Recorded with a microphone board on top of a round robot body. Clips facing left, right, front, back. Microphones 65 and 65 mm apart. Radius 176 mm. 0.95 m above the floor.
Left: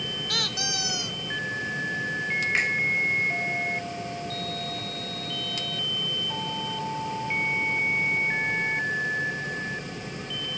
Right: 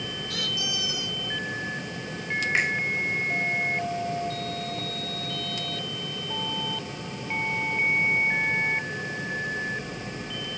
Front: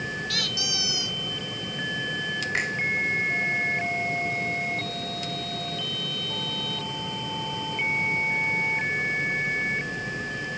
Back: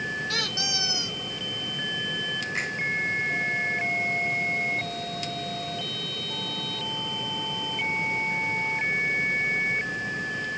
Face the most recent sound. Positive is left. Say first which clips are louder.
# right 2 dB, front 4 dB
turn(degrees=-5)